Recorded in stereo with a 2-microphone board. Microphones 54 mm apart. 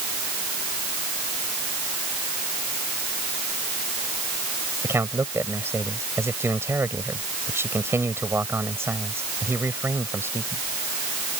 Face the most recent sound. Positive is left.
turn(degrees=-55)  # may be behind; listen again after turning